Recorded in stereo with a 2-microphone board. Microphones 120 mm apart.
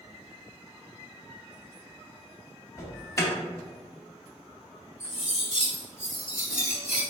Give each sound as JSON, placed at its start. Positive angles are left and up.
{"t": 2.8, "sound": "an alarm", "side_deg": 30, "distance_m": 0.9}
{"t": 5.0, "sound": "cutlery clinking", "side_deg": -85, "distance_m": 1.5}